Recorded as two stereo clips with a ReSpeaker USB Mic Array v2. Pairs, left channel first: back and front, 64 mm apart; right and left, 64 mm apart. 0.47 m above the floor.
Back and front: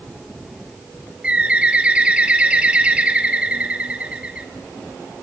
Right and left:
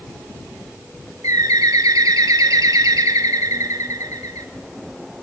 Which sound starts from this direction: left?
A bird, at 1.2 s.